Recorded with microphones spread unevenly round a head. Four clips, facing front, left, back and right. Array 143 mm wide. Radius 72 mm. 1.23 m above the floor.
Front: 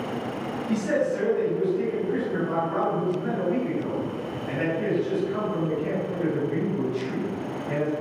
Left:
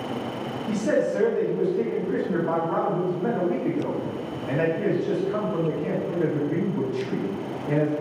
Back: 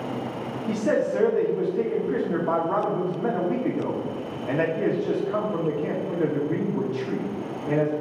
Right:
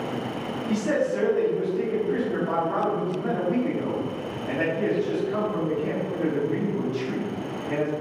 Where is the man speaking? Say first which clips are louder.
Left 1 dB, back 1 dB; 170° left, 2 m.